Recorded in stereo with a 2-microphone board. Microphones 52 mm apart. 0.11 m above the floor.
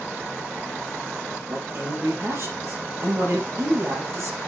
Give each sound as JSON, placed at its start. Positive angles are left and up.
{"t": 1.5, "sound": "a man speaking", "side_deg": -55, "distance_m": 3.5}